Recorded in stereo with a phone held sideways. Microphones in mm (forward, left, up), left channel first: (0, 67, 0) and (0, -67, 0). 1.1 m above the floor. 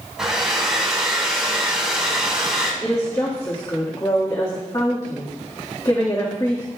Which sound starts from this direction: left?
A woman speaking, at 2.8 s.